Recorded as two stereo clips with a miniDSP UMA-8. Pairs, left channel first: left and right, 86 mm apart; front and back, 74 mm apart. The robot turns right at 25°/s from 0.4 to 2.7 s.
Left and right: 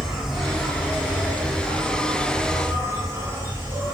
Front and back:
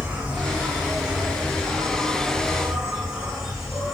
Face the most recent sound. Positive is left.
turn(degrees=-100)